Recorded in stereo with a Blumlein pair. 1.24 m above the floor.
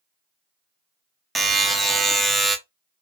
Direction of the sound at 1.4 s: 10° right.